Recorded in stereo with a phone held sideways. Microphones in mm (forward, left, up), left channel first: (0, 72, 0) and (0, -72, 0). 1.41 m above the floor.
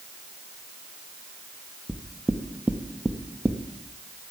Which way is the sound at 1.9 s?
5° right (ahead or behind).